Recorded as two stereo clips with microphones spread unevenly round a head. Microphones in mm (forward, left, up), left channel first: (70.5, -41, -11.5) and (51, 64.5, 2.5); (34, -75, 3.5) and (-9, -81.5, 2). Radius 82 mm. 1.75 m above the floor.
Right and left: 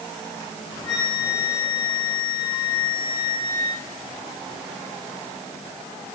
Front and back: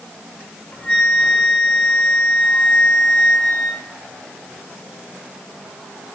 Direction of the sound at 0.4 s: 30° right.